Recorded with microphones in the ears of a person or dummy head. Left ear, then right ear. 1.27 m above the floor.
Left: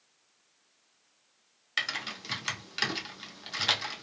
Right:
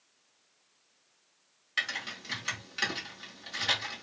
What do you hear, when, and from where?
1.8 s typing on a keyboard: 15° left (ahead or behind), 0.6 m